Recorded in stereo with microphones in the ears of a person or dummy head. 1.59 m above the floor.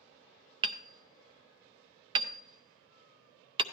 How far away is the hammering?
About 0.5 m.